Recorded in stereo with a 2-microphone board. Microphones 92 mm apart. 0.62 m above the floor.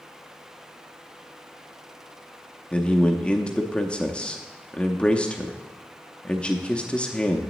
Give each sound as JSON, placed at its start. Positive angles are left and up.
{"t": 2.7, "sound": "a man speaking", "side_deg": 10, "distance_m": 0.6}